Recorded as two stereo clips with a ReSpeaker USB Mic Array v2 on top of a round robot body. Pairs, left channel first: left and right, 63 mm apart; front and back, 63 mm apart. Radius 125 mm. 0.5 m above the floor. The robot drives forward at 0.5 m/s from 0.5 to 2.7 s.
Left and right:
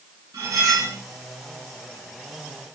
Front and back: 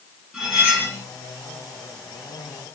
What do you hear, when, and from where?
0.3 s cutlery clinking: 100° right, 1.8 m; by 1.0 s 110° right, 1.9 m